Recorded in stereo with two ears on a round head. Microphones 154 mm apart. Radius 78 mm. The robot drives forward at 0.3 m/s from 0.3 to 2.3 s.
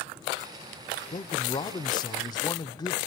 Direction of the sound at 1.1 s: 25° left (ahead or behind).